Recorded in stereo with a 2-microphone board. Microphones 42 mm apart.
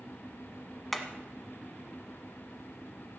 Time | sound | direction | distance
0.9 | hammering | centre (ahead or behind) | 1.1 m